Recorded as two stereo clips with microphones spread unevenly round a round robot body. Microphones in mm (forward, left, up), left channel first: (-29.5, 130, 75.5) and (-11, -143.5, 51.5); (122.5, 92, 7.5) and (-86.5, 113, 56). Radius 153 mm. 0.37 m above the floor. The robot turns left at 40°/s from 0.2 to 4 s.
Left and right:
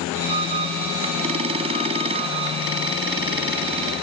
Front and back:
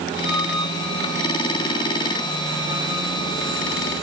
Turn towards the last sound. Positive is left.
No sound to turn to.